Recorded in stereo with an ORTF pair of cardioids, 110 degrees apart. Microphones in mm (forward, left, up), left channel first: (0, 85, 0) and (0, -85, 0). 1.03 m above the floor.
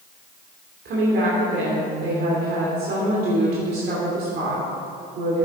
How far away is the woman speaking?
About 2.5 m.